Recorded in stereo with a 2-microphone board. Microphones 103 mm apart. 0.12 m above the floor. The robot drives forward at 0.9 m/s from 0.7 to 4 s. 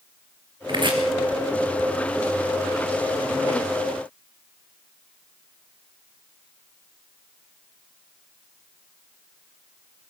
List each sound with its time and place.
0.7 s chopping: 45° right (ahead or behind), 2.5 m; by 1.0 s 50° right (ahead or behind), 2.5 m